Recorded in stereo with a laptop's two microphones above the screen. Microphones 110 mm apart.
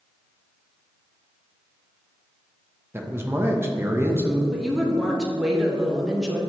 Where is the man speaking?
25° right (ahead or behind), 0.6 m.